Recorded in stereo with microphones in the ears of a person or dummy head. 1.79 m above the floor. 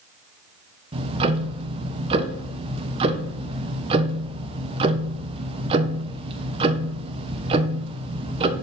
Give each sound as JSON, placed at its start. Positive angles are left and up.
{"t": 0.9, "sound": "ticking", "side_deg": -30, "distance_m": 1.1}